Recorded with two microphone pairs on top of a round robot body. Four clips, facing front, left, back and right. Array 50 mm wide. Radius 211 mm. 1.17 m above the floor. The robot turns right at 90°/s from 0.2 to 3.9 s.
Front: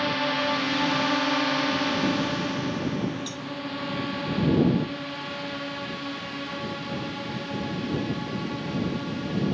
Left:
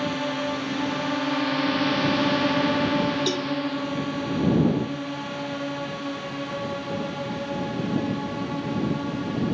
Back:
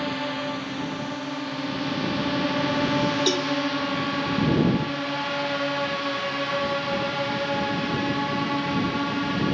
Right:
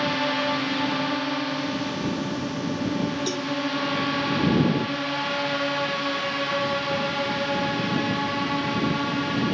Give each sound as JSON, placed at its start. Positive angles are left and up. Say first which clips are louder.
{"t": 0.0, "sound": "a drone", "louder": "right 3 dB, front 3 dB", "azimuth_deg": -70}
{"t": 3.3, "sound": "a cowbell", "louder": "left 2 dB, back 12 dB", "azimuth_deg": -175}